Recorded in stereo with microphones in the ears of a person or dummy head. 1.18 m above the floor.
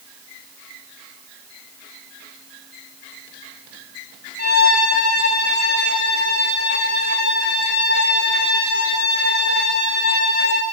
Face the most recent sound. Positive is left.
turn(degrees=45)  # may be behind; listen again after turning